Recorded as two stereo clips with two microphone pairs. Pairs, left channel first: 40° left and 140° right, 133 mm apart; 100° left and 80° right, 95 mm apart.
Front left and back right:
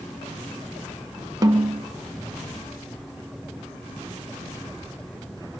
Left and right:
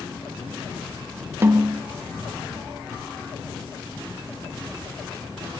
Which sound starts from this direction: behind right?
A snare drum, at 1.4 s.